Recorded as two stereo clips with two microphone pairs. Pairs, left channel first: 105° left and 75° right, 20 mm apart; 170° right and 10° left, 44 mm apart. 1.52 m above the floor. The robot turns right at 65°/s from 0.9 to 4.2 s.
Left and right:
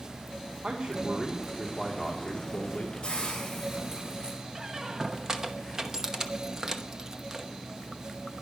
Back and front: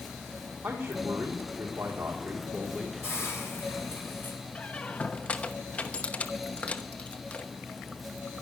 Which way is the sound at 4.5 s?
130° right.